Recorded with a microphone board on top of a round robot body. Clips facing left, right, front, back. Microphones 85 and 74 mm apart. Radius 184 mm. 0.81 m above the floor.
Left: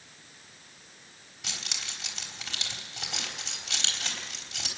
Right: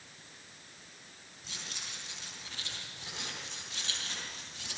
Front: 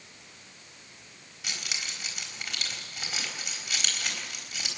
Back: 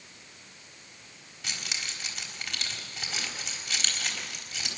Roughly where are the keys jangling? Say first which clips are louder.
Left 5 dB, even; left.